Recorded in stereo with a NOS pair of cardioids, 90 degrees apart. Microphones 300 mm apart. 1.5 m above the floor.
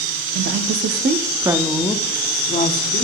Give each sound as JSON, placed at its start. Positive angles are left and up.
{"t": 0.3, "sound": "a woman speaking", "azimuth_deg": -60, "distance_m": 0.9}